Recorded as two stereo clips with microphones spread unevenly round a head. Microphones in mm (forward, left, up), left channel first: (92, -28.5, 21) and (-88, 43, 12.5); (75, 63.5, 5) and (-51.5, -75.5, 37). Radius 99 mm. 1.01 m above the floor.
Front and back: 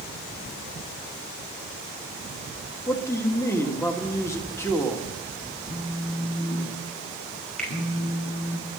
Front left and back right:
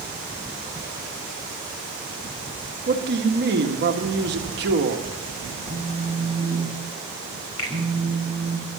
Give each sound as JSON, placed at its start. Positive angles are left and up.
{"t": 2.9, "sound": "a man speaking", "azimuth_deg": -100, "distance_m": 1.9}
{"t": 5.7, "sound": "a phone buzzing", "azimuth_deg": -50, "distance_m": 4.5}
{"t": 7.6, "sound": "a finger snap", "azimuth_deg": 65, "distance_m": 4.5}